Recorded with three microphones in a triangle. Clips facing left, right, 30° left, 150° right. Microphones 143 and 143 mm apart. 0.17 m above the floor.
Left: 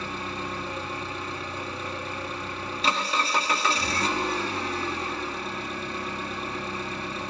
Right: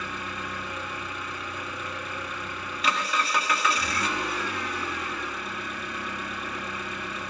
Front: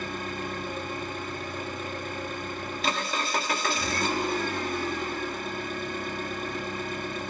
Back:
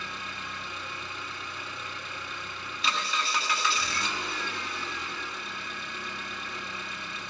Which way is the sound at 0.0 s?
45° left.